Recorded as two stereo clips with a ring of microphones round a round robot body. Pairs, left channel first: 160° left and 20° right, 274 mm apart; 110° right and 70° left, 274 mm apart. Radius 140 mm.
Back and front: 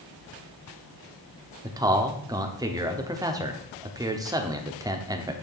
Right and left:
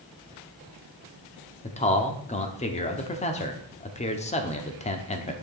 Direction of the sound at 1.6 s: 85° right.